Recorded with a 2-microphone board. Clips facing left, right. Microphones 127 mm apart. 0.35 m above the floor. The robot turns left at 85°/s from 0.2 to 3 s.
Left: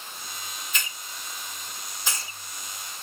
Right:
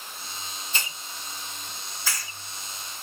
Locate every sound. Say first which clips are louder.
0.7 s a hiss: right 3 dB; 30° right (ahead or behind), 0.7 m; by 2.3 s 30° left (ahead or behind), 0.7 m